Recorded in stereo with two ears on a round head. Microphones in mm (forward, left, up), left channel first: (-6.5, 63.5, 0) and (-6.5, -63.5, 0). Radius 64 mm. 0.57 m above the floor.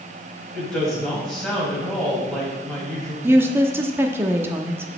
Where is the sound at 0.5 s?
5° left (ahead or behind), 4 m.